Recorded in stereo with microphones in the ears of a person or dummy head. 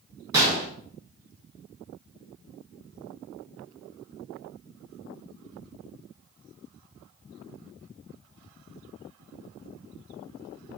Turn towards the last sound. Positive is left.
turn(degrees=-20)  # may be behind; listen again after turning